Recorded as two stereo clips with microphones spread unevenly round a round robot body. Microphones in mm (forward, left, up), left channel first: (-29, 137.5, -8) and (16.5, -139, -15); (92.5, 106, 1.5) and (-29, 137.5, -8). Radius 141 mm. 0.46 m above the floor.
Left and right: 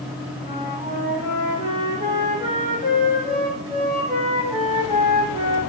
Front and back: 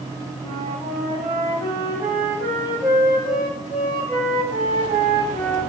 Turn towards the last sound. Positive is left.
turn(degrees=-150)